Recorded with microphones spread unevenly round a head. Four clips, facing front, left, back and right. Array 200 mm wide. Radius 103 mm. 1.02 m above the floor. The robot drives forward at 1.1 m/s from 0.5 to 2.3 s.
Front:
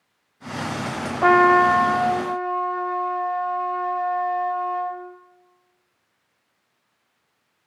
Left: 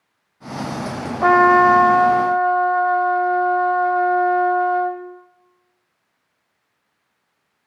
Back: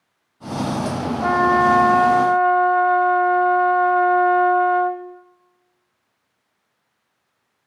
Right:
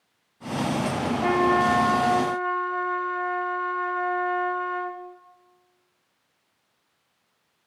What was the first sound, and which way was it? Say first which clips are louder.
A trumpet: left 10 dB, front 2 dB; 50° left.